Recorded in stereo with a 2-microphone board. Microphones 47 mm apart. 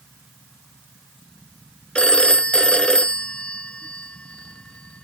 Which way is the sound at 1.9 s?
20° left (ahead or behind).